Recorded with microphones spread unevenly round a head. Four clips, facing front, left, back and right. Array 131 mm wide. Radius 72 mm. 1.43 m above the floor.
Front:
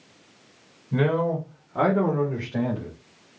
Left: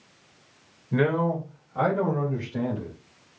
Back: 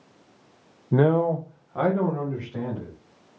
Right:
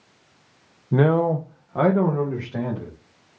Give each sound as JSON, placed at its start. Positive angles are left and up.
{"t": 0.9, "sound": "a man speaking", "azimuth_deg": -150, "distance_m": 0.8}